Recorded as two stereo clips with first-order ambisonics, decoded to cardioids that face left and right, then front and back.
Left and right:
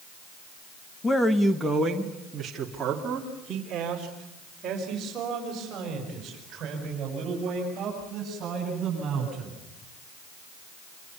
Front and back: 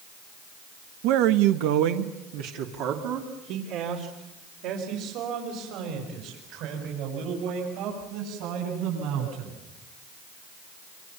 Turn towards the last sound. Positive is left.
turn(degrees=-150)